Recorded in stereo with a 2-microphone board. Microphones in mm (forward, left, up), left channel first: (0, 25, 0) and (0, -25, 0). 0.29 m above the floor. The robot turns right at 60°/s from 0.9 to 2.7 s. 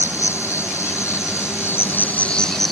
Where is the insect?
70° left; by 2.7 s straight behind.